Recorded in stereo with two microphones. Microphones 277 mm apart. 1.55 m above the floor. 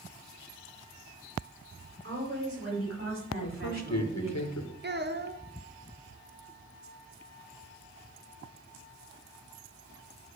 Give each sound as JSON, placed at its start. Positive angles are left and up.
{"t": 2.0, "sound": "a woman speaking", "side_deg": -55, "distance_m": 6.0}
{"t": 3.4, "sound": "a man speaking", "side_deg": 70, "distance_m": 1.8}
{"t": 4.8, "sound": "a child speaking", "side_deg": -40, "distance_m": 1.2}